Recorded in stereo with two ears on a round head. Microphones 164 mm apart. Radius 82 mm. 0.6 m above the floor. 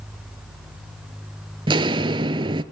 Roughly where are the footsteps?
Right.